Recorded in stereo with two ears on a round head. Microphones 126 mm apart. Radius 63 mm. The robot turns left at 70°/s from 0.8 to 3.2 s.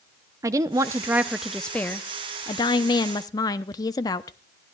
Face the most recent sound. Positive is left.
turn(degrees=60)